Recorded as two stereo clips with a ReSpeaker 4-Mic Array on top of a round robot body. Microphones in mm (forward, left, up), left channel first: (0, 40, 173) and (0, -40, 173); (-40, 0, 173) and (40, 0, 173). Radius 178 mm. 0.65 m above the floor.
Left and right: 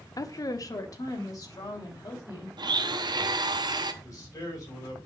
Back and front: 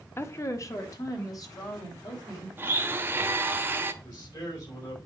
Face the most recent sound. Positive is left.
turn(degrees=140)